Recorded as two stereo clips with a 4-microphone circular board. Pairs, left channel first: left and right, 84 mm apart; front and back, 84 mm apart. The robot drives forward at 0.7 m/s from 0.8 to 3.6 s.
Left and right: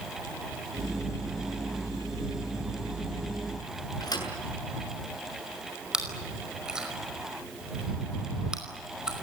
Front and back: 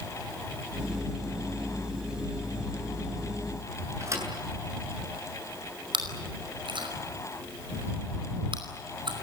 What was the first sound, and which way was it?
A thud, 125° left.